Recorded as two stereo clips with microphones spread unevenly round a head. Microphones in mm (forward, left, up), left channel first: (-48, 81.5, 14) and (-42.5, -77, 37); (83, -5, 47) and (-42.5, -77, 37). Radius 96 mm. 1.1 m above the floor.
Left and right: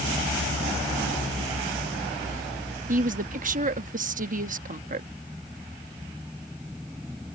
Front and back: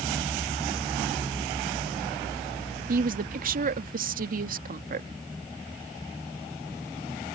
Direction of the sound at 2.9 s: 125° right.